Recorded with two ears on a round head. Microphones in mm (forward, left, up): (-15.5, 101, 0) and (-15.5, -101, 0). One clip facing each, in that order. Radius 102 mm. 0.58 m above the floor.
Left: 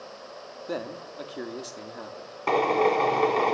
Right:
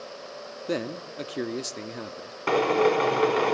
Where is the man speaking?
30° right (ahead or behind), 1.1 m.